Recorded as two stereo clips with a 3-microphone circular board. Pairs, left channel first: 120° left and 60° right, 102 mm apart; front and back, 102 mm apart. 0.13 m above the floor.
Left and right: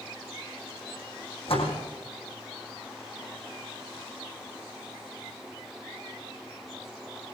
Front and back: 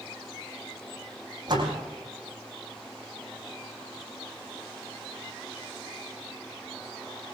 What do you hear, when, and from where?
1.5 s a door slam: 140° left, 5 m